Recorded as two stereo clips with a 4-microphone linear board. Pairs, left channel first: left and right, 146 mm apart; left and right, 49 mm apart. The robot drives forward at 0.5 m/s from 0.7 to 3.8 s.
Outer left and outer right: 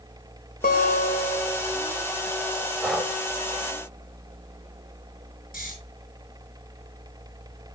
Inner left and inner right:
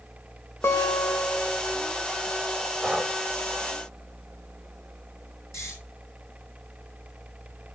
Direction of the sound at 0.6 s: 75° left (ahead or behind).